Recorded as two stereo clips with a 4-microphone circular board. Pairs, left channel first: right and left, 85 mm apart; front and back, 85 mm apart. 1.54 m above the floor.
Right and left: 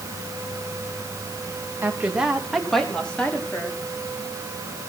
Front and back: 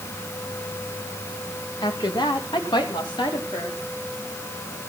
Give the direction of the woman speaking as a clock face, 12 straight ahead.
11 o'clock.